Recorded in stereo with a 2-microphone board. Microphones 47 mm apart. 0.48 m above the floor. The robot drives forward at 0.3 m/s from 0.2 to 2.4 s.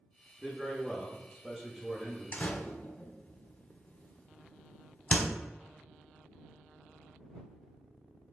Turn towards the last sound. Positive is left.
turn(degrees=40)  # may be behind; listen again after turning